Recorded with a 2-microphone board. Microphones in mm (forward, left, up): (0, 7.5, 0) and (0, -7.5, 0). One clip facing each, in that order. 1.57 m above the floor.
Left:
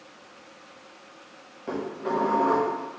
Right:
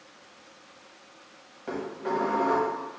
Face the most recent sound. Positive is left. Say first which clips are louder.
# left 2 dB
turn(degrees=0)  # may be behind; listen again after turning